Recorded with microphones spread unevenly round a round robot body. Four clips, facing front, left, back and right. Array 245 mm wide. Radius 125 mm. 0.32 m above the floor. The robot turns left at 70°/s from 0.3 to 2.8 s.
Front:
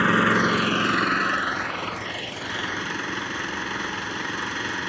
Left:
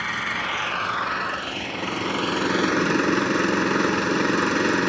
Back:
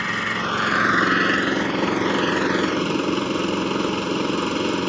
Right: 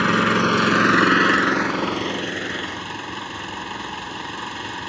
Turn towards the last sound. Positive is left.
turn(degrees=130)